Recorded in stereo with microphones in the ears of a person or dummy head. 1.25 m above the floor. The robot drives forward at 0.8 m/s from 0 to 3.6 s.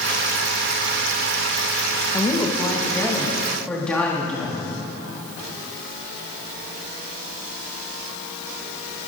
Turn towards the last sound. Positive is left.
turn(degrees=10)  # may be behind; listen again after turning